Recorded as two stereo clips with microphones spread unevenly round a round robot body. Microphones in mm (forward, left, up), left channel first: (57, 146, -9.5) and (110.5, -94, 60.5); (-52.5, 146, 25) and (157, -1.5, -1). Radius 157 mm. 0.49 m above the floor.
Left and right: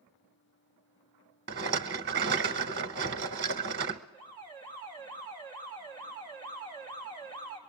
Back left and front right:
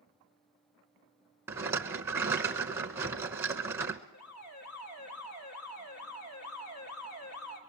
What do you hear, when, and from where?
1.5 s a rattle: 120° right, 0.6 m
4.1 s an alarm: 175° left, 3 m